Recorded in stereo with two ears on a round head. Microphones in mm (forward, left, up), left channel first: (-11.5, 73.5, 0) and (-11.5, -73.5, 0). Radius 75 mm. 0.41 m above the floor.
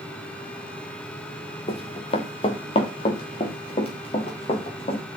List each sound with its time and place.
1.7 s running footsteps: 35° left (ahead or behind), 2 m